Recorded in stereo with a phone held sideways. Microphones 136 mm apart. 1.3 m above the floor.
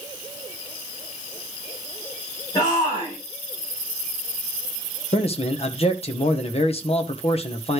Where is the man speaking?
45° left (ahead or behind), 1.2 m.